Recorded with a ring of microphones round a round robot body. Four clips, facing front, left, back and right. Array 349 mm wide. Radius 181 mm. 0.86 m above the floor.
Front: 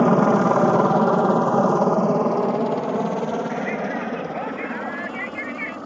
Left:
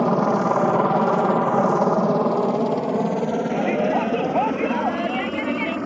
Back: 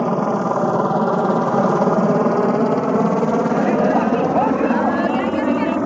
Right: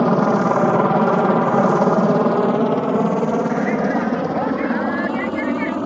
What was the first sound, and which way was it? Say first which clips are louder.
A helicopter: right 3 dB, front 2 dB; 45° right.